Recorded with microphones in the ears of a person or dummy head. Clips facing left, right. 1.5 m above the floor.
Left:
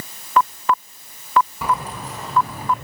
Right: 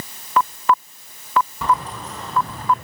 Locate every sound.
1.6 s keys jangling: 10° left (ahead or behind), 9 m